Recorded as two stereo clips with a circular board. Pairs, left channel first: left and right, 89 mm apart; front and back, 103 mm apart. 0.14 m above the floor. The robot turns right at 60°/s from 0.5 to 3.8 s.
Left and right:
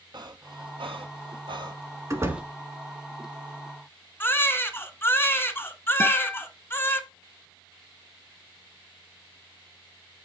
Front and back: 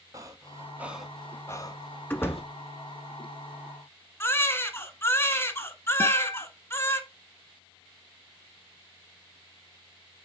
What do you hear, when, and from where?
0.1 s breathing: 125° right, 0.9 m; by 2.4 s 5° right, 0.9 m
2.1 s a door slam: 60° right, 1.2 m; by 2.5 s 35° right, 1.2 m
4.2 s a baby crying: 45° left, 1.1 m
6.0 s a guitar: 60° left, 1.3 m